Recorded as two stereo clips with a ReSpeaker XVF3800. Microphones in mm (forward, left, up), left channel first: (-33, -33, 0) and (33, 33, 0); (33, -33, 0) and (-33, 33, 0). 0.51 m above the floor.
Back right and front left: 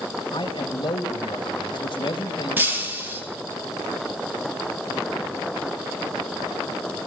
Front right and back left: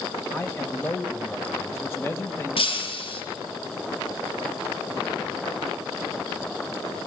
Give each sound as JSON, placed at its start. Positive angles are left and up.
{"t": 0.3, "sound": "a man speaking", "azimuth_deg": -110, "distance_m": 2.0}
{"t": 2.6, "sound": "breaking glass", "azimuth_deg": -25, "distance_m": 5.0}